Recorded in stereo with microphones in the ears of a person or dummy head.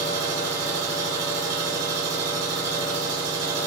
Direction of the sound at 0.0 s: 10° right (ahead or behind).